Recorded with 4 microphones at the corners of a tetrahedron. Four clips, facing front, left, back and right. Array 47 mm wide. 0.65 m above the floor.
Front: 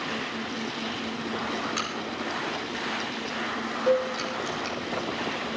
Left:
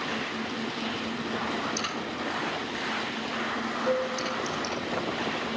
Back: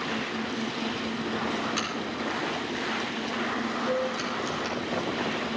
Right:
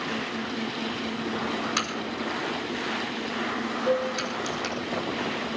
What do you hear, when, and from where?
1.8 s a crack: 90° right, 7.5 m
3.9 s a cowbell: 10° right, 3.5 m